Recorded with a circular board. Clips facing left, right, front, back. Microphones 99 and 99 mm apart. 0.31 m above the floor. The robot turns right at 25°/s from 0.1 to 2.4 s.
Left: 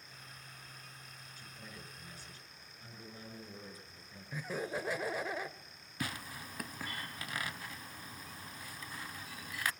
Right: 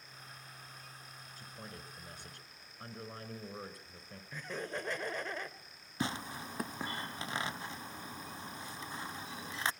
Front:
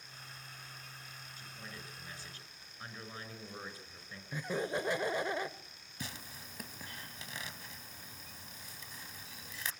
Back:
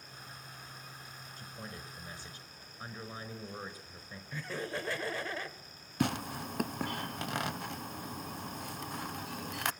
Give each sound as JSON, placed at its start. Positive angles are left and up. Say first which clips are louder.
{"t": 1.4, "sound": "a man speaking", "louder": "right 3 dB, back 4 dB", "azimuth_deg": -130, "distance_m": 5.5}
{"t": 4.3, "sound": "laughter", "louder": "left 2 dB, front 3 dB", "azimuth_deg": 20, "distance_m": 0.9}
{"t": 6.0, "sound": "tearing paper", "louder": "right 4 dB, back 15 dB", "azimuth_deg": -155, "distance_m": 0.5}